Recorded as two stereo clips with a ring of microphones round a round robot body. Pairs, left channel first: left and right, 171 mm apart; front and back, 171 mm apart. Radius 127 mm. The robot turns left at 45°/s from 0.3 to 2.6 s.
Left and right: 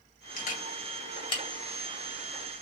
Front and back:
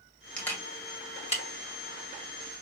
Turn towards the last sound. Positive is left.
turn(degrees=-20)